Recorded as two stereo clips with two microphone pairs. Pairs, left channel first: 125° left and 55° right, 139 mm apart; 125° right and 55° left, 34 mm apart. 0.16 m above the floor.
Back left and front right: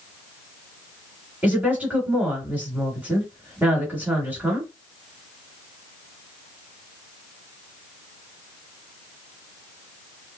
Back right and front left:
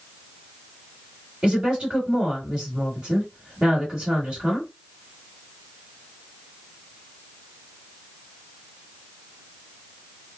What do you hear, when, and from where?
1.4 s a woman speaking: 15° left, 1.9 m